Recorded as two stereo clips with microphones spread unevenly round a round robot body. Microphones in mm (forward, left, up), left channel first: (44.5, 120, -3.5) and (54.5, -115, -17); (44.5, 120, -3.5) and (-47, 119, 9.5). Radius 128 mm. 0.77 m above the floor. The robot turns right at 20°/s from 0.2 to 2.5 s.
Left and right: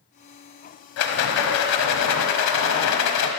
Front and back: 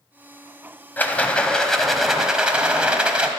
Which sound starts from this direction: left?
A rattle, at 1.0 s.